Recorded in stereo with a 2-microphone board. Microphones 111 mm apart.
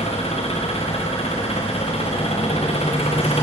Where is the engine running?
65° left (ahead or behind), 5 m.